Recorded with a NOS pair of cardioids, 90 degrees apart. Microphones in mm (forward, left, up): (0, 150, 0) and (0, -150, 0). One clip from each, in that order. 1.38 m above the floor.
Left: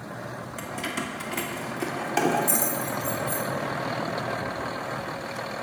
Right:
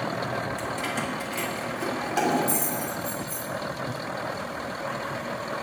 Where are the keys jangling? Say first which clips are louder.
Right 2 dB; 10° left, 1.8 m; by 3.5 s 35° left, 3 m.